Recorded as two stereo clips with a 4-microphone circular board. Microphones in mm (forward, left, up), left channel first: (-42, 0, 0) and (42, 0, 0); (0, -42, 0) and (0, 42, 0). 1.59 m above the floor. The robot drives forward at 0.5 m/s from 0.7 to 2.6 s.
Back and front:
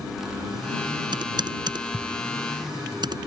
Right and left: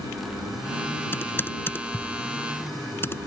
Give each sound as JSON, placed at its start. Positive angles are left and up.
{"t": 1.1, "sound": "typing on a keyboard", "azimuth_deg": -25}